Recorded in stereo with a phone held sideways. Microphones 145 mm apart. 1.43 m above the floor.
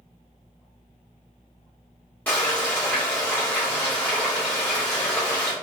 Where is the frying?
10° left (ahead or behind), 1.4 m.